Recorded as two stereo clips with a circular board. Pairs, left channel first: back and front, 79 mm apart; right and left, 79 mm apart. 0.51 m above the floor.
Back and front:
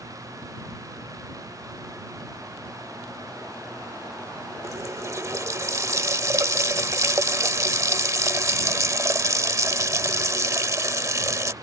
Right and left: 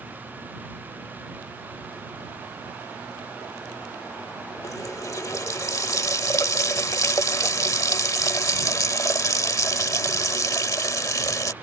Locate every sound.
4.6 s a running tap: 45° right